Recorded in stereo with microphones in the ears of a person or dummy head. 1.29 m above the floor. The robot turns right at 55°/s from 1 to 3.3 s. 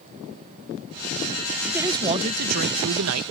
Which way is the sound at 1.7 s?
175° right.